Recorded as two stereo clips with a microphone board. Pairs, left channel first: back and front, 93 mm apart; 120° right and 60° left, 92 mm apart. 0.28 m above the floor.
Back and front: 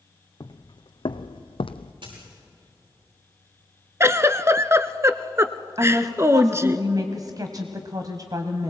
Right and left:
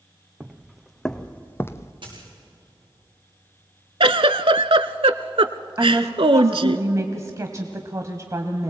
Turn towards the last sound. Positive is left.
turn(degrees=20)